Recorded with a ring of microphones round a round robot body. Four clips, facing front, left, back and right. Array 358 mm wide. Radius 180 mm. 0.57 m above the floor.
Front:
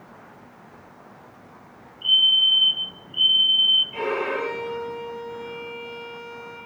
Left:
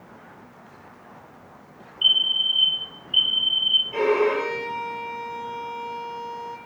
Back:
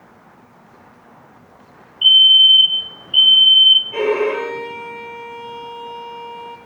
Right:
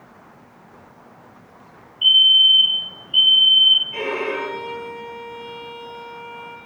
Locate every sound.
2.0 s a fire alarm: 175° right, 8.5 m
3.9 s a violin: 165° left, 9 m